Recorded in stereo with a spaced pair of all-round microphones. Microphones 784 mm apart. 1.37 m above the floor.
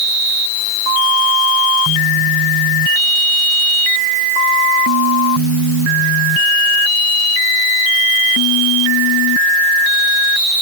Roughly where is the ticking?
I don't hear ticking.